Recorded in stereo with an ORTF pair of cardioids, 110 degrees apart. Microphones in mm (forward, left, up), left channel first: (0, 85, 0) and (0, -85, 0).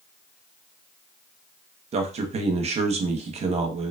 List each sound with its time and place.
1.9 s a man speaking: 45° right, 0.7 m